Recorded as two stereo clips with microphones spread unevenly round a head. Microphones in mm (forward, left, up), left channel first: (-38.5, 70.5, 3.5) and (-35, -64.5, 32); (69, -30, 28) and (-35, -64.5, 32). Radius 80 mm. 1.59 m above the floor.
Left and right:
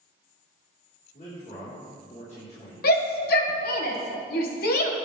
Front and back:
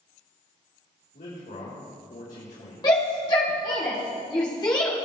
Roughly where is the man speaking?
Ahead left.